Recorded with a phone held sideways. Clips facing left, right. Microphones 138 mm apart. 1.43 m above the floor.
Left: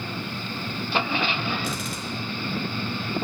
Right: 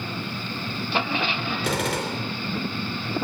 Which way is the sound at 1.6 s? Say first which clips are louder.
Right 6 dB; 80° right.